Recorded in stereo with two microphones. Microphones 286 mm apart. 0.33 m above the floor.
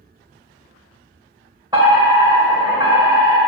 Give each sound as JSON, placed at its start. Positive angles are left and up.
{"t": 1.7, "sound": "a fire alarm", "side_deg": -15, "distance_m": 2.0}